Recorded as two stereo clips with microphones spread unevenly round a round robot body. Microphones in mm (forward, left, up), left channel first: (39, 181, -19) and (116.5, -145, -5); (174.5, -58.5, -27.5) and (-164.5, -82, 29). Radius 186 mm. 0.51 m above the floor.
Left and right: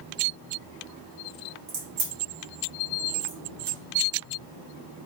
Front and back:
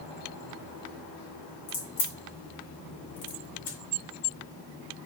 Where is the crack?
15° right, 2 m.